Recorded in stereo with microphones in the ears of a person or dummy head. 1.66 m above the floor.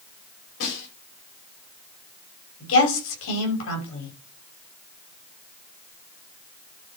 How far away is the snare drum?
About 6 m.